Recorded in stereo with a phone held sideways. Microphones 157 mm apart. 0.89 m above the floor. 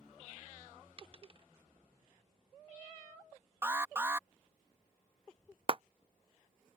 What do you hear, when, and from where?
1.0 s a dropped coin: 40° right (ahead or behind)
3.6 s an alarm: 15° right (ahead or behind)
5.7 s a clap: 40° right (ahead or behind)